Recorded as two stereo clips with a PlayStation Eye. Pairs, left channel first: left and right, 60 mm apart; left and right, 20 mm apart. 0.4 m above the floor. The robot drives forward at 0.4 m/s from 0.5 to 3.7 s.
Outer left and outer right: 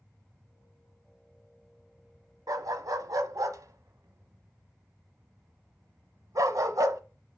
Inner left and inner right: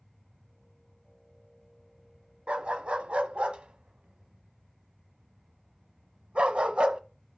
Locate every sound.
2.5 s a dog barking: 75° right (ahead or behind), 0.9 m; by 7.0 s 70° right (ahead or behind), 0.9 m